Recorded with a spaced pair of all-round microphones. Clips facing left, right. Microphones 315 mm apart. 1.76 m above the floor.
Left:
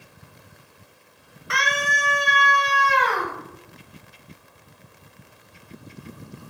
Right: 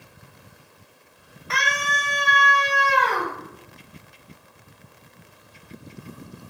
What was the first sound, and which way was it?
A scream, 20° left (ahead or behind).